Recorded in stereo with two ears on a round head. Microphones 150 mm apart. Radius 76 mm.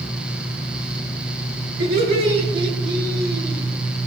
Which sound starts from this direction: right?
Laughter, at 1.8 s.